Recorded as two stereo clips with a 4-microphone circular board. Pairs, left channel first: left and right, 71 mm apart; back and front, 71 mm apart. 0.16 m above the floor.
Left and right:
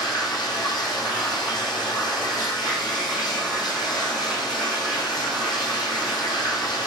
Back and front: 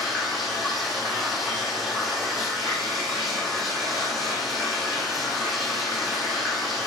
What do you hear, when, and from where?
0.0 s running water: 85° left, 2 m